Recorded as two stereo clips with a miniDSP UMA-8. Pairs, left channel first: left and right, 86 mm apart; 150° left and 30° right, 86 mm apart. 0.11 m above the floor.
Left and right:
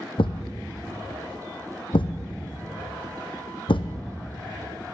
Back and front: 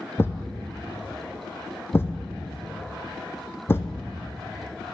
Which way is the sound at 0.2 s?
90° left.